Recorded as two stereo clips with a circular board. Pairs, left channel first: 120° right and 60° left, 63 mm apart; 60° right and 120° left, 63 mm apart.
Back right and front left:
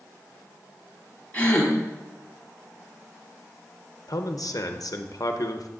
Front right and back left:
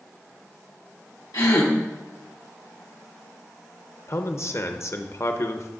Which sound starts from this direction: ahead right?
A gasp, at 1.3 s.